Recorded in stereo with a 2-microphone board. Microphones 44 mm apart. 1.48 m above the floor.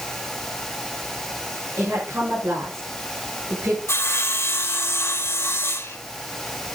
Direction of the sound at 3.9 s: 80° left.